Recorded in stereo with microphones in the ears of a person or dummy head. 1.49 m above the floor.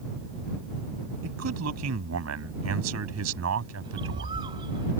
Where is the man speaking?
90° right.